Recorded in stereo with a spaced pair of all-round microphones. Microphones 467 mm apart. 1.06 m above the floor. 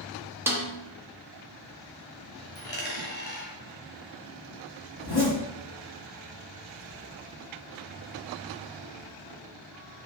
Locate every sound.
0.5 s a snare drum: 5° right (ahead or behind), 0.7 m
2.5 s a dropped coin: 20° left (ahead or behind), 1.6 m
5.0 s a zipper: 50° left (ahead or behind), 1.3 m